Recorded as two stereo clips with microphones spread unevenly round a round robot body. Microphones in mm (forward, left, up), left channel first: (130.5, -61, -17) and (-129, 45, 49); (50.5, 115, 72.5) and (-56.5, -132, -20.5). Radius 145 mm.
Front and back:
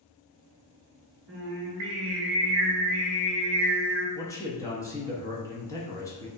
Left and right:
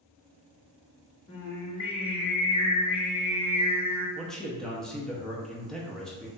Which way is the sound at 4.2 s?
60° right.